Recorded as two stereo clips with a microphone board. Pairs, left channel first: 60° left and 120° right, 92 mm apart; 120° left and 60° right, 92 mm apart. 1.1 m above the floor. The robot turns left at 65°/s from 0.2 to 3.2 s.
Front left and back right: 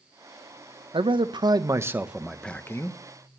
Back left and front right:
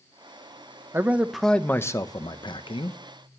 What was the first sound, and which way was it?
A man speaking, 120° right.